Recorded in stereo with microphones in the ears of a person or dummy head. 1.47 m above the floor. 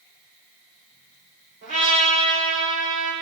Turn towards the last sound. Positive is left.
turn(degrees=-45)  # may be behind; listen again after turning